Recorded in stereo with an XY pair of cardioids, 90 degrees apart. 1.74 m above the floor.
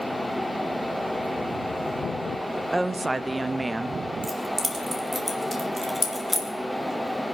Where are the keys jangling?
10° right, 3 m.